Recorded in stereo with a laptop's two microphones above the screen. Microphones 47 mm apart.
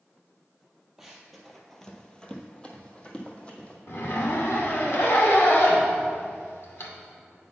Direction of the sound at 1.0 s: 5° right (ahead or behind).